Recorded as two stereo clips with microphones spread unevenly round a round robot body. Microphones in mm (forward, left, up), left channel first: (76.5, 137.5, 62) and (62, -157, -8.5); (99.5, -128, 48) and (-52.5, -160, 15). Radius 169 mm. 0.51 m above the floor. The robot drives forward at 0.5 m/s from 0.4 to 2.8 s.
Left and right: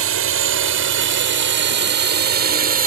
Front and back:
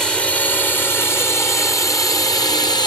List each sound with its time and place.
0.0 s a drone: 80° right; by 2.9 s 55° right